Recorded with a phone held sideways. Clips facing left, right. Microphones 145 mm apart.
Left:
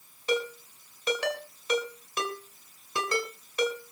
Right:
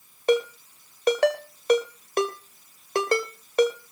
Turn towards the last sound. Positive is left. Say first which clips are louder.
# right 7 dB
turn(degrees=-55)  # may be behind; listen again after turning